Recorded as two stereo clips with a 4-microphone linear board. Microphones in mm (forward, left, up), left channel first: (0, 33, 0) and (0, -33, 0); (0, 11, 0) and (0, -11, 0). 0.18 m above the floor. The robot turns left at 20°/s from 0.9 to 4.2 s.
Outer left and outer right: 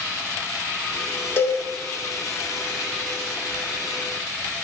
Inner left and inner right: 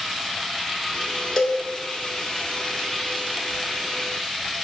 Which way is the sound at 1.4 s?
35° left (ahead or behind).